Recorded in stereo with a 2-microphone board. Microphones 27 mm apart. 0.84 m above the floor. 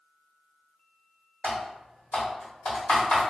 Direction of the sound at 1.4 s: 50° left (ahead or behind).